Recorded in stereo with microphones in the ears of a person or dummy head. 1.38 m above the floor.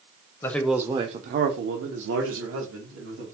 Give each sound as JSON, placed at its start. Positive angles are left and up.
{"t": 0.4, "sound": "a man speaking", "side_deg": 15, "distance_m": 0.6}